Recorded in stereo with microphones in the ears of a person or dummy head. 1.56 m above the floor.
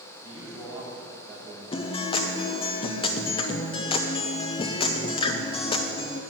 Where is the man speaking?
15° right (ahead or behind), 4 m.